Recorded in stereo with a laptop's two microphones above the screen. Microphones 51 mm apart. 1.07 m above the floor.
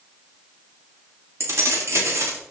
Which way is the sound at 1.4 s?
70° right (ahead or behind).